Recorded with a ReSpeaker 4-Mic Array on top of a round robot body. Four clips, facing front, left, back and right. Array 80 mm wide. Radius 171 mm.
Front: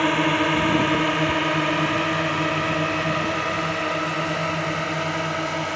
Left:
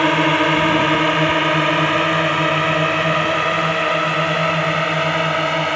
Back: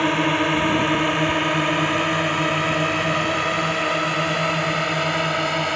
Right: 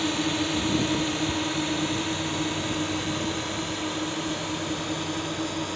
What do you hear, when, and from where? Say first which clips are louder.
0.0 s a drone: left 11 dB, even; 90° left; by 5.8 s 105° left